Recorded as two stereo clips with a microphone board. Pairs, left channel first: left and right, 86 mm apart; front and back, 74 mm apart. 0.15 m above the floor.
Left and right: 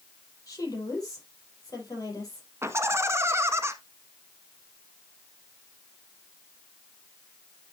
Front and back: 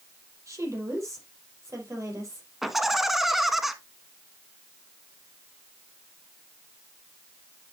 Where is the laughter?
95° right, 1.2 m.